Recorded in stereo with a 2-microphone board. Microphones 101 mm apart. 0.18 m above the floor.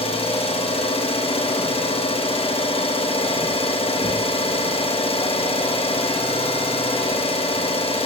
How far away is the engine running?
About 6.5 m.